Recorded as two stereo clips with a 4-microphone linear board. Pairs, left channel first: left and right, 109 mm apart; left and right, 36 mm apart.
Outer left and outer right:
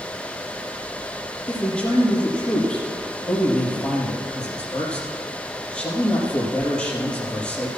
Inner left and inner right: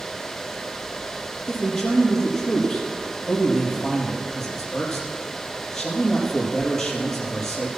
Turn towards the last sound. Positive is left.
turn(degrees=10)  # may be behind; listen again after turning